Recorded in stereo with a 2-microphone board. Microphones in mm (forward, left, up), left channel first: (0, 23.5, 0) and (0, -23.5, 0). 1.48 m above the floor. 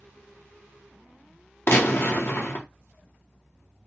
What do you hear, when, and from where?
1.7 s a gunshot: 55° left (ahead or behind), 0.7 m